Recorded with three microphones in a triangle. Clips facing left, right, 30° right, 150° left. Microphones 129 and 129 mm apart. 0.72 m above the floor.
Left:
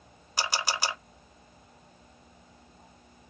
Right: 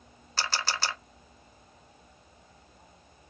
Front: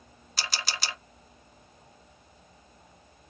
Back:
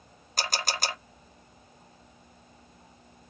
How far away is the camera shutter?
About 0.6 m.